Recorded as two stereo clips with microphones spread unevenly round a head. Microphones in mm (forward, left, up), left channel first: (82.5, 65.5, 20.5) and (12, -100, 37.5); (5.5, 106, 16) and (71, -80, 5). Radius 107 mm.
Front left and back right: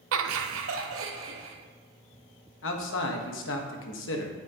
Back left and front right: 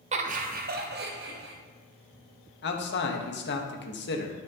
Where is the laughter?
135° right, 0.7 m; by 1.6 s 115° right, 1.6 m.